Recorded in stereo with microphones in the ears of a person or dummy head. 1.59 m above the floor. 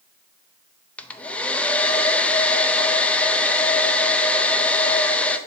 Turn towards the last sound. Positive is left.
turn(degrees=10)  # may be behind; listen again after turning